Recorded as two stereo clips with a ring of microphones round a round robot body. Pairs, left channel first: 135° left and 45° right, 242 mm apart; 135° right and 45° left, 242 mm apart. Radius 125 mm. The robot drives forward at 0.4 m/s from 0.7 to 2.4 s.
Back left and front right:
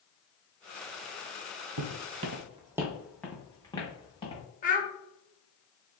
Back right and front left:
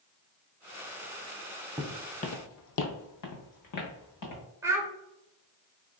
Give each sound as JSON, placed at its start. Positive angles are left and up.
{"t": 1.8, "sound": "footsteps", "azimuth_deg": -35, "distance_m": 0.7}
{"t": 4.6, "sound": "a child speaking", "azimuth_deg": 115, "distance_m": 0.9}